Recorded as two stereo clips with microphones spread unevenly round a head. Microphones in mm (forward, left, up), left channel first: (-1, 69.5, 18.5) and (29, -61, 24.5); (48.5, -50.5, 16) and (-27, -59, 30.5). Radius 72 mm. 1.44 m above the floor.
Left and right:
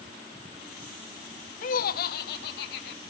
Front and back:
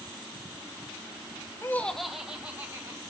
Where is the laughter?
75° left, 0.9 m; by 3.0 s 115° left, 2.5 m.